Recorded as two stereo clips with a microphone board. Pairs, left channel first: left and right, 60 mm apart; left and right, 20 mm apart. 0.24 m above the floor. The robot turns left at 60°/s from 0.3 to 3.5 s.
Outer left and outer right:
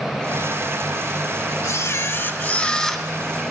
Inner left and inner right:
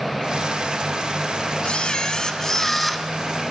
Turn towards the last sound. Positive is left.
turn(degrees=-30)